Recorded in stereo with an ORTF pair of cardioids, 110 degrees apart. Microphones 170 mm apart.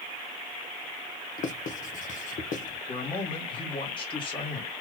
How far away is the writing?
About 0.8 m.